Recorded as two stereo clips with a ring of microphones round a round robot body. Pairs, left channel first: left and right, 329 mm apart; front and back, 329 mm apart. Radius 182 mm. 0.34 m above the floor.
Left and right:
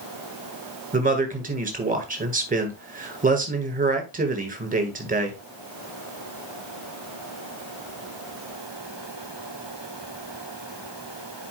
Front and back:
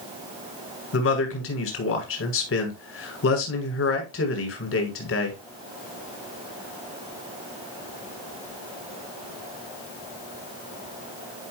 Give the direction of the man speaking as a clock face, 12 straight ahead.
1 o'clock.